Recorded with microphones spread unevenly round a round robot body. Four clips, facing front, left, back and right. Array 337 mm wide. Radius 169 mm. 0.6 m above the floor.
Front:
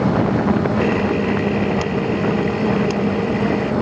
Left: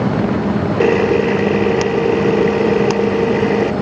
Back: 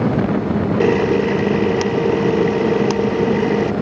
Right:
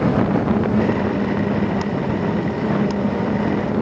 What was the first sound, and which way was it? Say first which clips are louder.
A camera shutter: left 7 dB, back 3 dB; 125° left.